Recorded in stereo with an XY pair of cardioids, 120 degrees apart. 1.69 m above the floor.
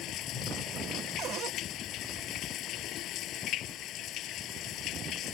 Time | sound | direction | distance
0.0 | running water | 70° left | ?
1.2 | a cupboard door | 60° right | ?